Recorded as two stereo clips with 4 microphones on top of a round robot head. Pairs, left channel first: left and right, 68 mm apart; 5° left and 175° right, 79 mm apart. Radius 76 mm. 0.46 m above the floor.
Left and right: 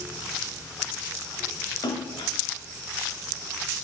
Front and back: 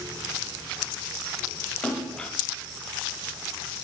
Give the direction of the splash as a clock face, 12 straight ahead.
9 o'clock.